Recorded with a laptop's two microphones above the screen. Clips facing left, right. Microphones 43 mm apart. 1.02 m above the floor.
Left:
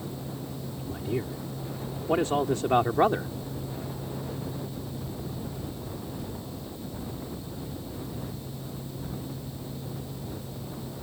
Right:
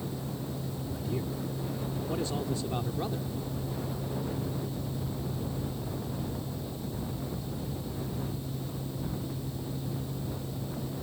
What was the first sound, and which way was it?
A man speaking, 30° left (ahead or behind).